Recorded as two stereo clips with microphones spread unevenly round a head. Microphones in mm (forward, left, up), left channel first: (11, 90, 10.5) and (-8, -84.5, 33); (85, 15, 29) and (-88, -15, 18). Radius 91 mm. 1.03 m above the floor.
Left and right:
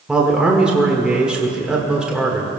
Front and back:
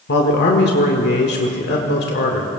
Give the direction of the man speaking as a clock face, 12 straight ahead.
12 o'clock.